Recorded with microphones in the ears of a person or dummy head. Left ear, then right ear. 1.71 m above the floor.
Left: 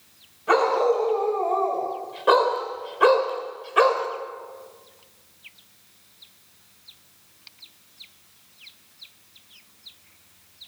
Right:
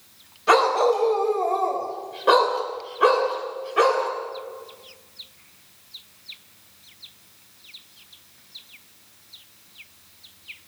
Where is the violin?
I don't hear a violin.